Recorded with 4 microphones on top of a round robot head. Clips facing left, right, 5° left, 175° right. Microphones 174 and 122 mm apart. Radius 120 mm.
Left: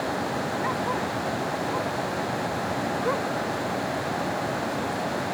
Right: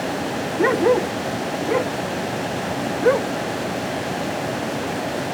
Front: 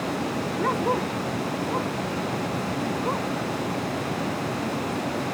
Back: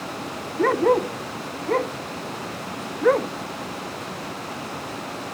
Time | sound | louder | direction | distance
0.6 | a dog barking | right 11 dB, back 7 dB | 115° right | ?